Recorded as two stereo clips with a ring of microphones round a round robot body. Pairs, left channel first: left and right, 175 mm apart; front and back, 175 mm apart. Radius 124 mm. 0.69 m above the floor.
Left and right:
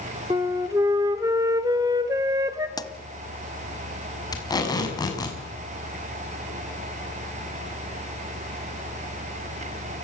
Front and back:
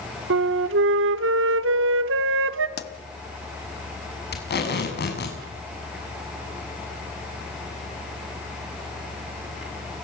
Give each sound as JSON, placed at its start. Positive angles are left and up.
{"t": 0.3, "sound": "a flute", "azimuth_deg": -170, "distance_m": 0.8}
{"t": 2.8, "sound": "a pop", "azimuth_deg": 20, "distance_m": 1.7}
{"t": 4.3, "sound": "tape being pulled", "azimuth_deg": 20, "distance_m": 6.5}